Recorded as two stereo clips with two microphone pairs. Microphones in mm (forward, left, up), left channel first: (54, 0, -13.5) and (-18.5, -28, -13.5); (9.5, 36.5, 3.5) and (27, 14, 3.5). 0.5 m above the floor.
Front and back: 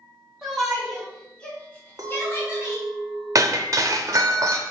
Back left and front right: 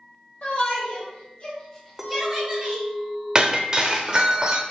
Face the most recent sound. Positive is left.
turn(degrees=-115)